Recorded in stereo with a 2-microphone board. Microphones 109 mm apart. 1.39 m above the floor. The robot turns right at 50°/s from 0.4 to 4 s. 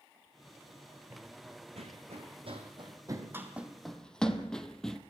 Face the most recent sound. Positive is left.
turn(degrees=5)  # may be behind; listen again after turning